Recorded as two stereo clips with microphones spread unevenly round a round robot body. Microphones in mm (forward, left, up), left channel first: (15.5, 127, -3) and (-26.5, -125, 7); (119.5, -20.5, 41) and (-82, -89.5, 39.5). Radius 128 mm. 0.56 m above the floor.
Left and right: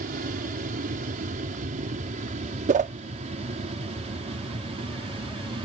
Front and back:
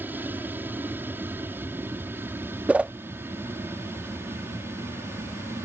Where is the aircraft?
90° right; by 5.7 s 105° right.